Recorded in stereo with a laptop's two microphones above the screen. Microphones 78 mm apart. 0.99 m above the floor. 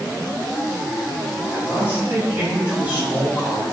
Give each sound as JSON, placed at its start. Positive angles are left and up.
{"t": 1.5, "sound": "a man speaking", "side_deg": -20, "distance_m": 6.5}